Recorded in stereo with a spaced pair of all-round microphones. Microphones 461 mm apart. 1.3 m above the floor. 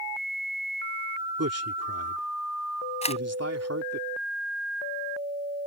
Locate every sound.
1.4 s a man speaking: 30° right (ahead or behind)
3.0 s a camera shutter: 15° left (ahead or behind)